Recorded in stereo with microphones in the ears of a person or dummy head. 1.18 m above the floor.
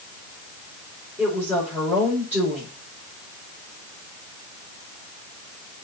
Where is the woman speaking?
10° right (ahead or behind), 5.5 m.